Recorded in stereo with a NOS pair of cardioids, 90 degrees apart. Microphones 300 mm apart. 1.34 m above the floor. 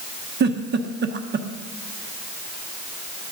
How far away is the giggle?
About 0.9 m.